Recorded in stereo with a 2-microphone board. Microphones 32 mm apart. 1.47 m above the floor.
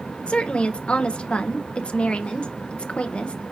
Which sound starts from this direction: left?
A woman speaking, at 0.3 s.